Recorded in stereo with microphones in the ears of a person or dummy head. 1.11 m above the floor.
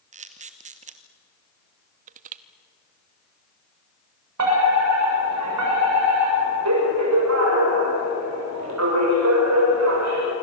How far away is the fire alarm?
About 6.5 m.